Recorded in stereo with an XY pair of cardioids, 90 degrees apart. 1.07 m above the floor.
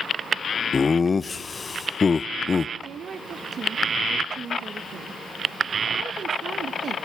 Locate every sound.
0.7 s laughter: 35° left, 0.5 m
2.8 s a woman speaking: 60° right, 1.2 m